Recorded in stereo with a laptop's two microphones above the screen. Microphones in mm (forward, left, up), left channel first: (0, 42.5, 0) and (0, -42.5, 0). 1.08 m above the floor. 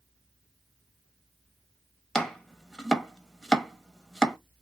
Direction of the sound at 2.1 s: 5° left (ahead or behind).